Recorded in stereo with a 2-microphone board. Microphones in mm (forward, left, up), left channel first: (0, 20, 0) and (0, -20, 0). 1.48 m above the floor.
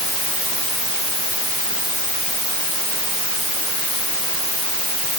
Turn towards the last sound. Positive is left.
No sound to turn to.